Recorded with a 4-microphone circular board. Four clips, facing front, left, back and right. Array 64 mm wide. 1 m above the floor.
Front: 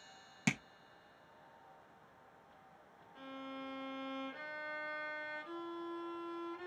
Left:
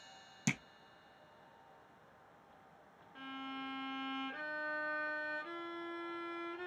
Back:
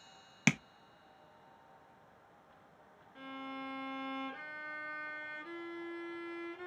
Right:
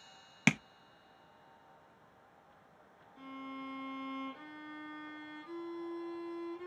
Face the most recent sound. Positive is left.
turn(degrees=105)